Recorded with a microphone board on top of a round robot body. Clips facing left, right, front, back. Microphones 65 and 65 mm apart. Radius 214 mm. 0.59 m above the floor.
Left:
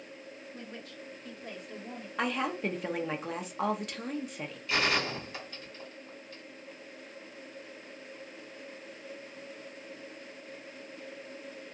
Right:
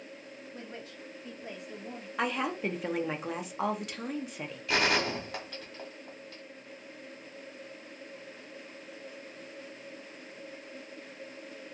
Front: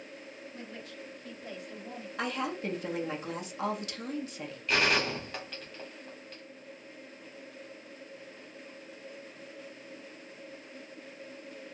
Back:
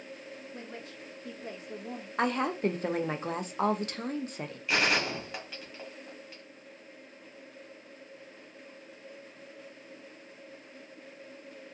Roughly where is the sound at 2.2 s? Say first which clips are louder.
Even, back 5 dB; behind.